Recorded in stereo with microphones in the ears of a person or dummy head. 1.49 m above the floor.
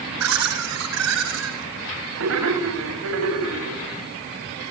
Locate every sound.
0.2 s laughter: 85° right, 8.5 m; by 3.8 s 75° right (ahead or behind), 7.5 m